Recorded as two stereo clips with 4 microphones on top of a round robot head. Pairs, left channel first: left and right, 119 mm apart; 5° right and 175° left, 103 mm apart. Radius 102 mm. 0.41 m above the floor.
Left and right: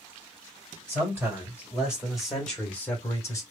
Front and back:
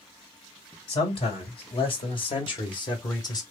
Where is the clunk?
I don't hear a clunk.